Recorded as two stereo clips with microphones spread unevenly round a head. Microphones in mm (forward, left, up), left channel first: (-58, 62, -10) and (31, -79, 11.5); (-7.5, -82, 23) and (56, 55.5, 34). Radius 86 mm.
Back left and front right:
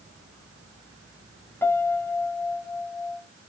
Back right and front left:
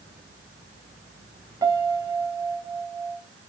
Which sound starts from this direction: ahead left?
A piano, at 1.6 s.